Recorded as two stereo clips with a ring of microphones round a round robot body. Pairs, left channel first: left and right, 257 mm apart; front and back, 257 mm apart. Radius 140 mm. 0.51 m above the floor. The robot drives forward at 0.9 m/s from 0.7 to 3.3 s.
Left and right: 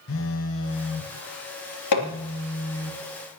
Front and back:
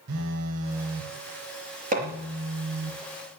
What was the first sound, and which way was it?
A phone buzzing, 135° left.